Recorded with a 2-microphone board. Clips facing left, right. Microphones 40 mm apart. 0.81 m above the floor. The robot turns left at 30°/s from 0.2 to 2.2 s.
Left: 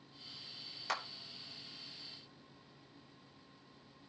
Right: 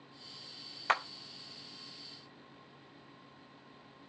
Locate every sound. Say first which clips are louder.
0.9 s a clap: right 8 dB; 40° right (ahead or behind), 0.6 m